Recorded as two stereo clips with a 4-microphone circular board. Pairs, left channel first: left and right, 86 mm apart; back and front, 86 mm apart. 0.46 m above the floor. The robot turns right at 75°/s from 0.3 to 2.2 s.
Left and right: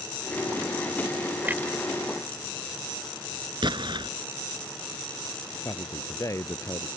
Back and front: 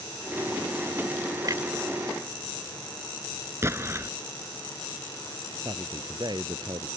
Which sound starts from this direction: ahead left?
A man speaking, at 5.6 s.